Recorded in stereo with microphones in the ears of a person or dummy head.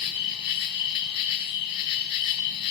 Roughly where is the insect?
Left.